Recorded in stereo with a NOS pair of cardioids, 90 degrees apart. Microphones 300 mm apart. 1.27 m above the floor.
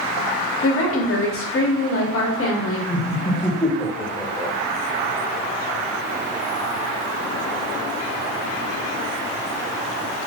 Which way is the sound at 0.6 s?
50° left.